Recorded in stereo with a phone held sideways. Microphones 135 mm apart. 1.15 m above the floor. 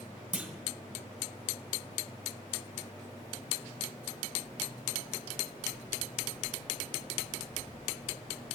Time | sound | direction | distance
0.3 | a clunk | 10° right (ahead or behind) | 0.6 m